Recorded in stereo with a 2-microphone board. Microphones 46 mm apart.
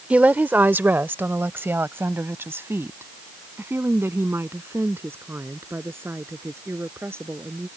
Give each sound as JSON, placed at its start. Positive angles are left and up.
{"t": 0.1, "sound": "a woman speaking", "side_deg": -30}